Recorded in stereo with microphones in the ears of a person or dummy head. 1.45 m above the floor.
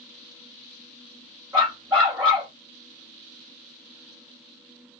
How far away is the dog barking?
About 1.5 m.